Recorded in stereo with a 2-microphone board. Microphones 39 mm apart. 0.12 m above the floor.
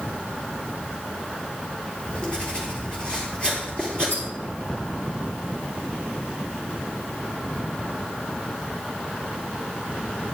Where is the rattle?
80° left, 4 m.